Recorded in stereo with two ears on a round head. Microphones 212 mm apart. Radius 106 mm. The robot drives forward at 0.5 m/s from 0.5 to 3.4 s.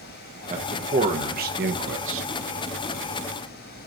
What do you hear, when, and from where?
0.5 s a man speaking: 30° right (ahead or behind), 1.4 m; by 2.3 s 60° right (ahead or behind), 0.7 m